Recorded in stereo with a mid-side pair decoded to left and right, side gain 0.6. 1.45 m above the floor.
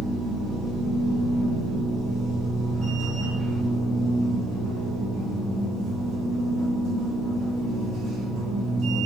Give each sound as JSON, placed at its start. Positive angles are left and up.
{"t": 0.0, "sound": "a machine running", "azimuth_deg": -60, "distance_m": 1.3}